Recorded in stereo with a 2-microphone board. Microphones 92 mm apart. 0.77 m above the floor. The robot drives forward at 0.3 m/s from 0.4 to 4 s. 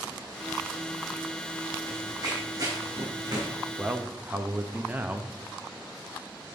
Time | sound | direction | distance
1.9 | running footsteps | 40° right (ahead or behind) | 3 m
3.8 | a man speaking | 20° right (ahead or behind) | 0.5 m